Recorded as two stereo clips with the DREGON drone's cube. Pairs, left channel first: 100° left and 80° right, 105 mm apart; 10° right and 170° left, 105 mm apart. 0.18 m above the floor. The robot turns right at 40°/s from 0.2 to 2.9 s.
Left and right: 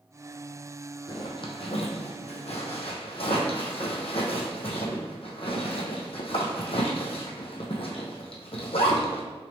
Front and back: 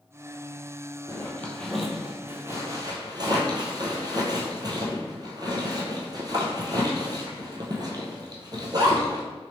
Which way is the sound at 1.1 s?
50° left.